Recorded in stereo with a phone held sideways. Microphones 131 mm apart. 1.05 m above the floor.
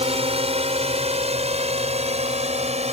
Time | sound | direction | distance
0.0 | a drone | 50° right (ahead or behind) | ?